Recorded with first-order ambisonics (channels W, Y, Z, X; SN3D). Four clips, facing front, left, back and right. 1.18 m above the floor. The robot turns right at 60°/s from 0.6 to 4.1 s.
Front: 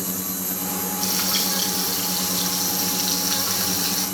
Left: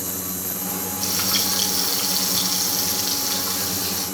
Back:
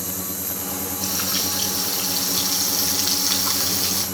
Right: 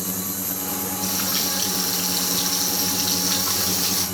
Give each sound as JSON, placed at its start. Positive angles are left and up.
{"t": 1.0, "sound": "frying", "azimuth_deg": 40, "distance_m": 5.5}